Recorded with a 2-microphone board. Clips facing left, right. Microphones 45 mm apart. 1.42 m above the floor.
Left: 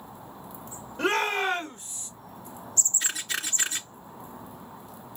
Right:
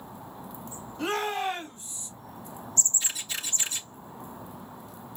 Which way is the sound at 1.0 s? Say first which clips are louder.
Left 3 dB; 55° left (ahead or behind).